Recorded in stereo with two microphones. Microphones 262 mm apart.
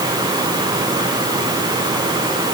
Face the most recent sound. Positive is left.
No sound to turn to.